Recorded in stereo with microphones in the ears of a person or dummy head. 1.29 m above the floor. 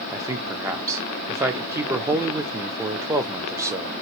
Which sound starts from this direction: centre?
A man speaking, at 0.1 s.